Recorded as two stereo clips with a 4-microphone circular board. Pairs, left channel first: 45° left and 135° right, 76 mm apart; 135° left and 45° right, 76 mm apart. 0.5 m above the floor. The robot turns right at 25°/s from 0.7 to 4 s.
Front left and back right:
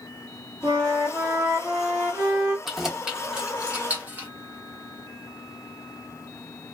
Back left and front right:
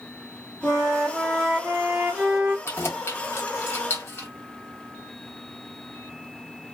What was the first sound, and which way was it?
A flute, 150° right.